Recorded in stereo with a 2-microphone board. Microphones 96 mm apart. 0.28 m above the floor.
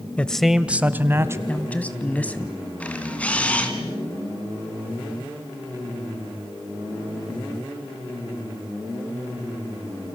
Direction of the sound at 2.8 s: 15° left (ahead or behind).